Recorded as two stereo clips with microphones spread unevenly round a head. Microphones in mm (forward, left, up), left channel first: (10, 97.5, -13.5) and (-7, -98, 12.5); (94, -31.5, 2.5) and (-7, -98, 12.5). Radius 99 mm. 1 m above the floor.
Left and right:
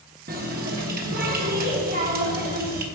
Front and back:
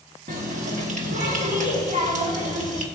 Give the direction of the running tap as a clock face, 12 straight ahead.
5 o'clock.